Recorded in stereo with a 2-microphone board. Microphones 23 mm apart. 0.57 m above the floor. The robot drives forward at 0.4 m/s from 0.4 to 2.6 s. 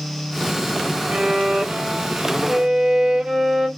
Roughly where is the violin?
Right.